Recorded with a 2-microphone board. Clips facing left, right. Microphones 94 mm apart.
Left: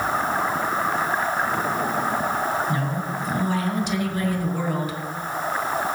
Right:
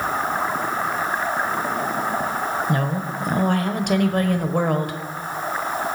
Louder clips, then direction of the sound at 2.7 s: Right 2 dB; 60° right (ahead or behind).